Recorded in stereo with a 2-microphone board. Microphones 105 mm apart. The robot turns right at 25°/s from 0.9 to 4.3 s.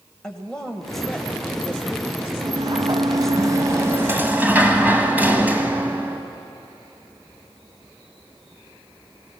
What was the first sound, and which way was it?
A woman speaking, 10° left (ahead or behind).